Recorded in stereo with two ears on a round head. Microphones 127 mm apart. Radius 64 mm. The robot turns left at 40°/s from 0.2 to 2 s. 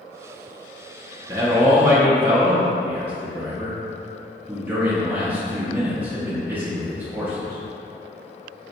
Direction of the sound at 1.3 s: 20° right (ahead or behind).